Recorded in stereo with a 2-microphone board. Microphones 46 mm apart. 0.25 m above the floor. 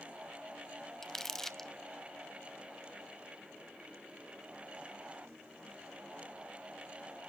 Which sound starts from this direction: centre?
Crumpling, at 1.0 s.